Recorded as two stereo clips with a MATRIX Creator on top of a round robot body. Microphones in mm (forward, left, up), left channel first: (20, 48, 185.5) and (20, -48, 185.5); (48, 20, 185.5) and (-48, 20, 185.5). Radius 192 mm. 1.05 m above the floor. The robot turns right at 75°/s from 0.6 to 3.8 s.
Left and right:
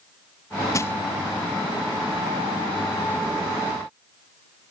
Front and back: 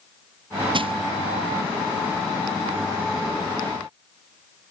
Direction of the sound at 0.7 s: 145° left.